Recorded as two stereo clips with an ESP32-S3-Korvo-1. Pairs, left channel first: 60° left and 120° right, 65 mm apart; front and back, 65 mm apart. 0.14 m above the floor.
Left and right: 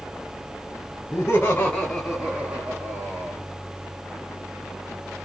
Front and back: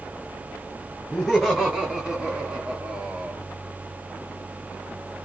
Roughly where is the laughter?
Left.